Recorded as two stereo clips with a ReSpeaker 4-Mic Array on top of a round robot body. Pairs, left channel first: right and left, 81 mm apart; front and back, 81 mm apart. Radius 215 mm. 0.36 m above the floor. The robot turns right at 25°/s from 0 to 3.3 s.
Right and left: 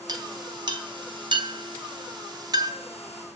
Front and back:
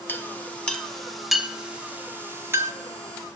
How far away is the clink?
About 2 m.